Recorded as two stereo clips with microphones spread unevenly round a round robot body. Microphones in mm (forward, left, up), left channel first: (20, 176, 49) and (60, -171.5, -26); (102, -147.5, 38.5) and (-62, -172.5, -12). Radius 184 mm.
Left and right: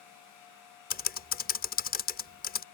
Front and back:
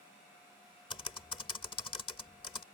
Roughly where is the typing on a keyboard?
Ahead left.